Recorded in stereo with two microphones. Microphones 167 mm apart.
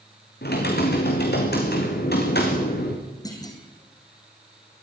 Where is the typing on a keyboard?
80° left, 4 m.